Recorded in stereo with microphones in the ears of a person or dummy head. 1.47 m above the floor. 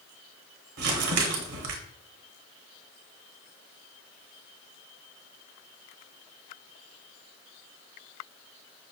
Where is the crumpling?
55° right (ahead or behind), 0.7 m.